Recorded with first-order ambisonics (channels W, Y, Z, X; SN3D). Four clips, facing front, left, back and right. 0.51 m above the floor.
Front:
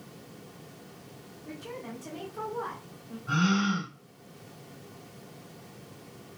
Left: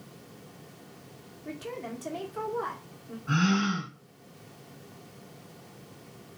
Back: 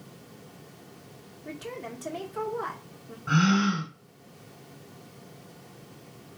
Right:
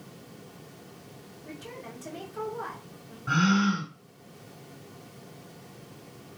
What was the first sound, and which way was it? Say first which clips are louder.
A woman speaking: left 5 dB, back 3 dB; 155° left.